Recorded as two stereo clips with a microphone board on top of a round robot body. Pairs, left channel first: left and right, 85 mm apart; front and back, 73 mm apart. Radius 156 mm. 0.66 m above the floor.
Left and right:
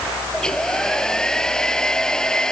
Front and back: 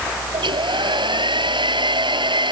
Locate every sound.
0.3 s a hair dryer: 175° left